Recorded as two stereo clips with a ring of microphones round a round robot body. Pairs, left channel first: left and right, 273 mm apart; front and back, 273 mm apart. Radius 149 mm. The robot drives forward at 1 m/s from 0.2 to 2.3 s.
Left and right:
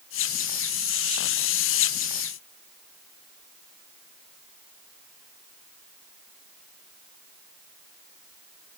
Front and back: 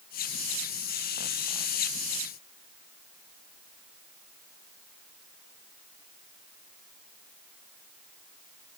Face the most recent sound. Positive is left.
No sound to turn to.